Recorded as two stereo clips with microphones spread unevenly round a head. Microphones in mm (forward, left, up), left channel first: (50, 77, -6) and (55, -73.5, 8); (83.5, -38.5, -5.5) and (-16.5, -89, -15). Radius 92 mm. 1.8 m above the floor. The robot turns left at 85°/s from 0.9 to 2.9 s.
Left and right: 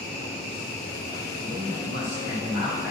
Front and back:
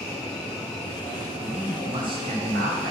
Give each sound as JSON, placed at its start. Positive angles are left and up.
{"t": 1.4, "sound": "a man speaking", "azimuth_deg": -60, "distance_m": 3.5}